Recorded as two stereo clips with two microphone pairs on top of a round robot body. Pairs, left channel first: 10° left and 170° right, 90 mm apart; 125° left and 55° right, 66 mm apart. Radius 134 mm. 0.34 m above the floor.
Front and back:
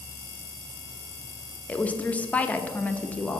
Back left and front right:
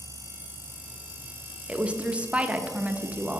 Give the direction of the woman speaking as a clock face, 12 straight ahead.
11 o'clock.